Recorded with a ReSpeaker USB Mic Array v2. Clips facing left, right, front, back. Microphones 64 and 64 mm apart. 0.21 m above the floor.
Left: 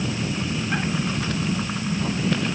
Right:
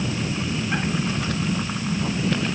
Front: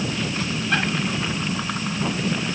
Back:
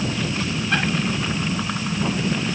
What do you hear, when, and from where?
Only background noise.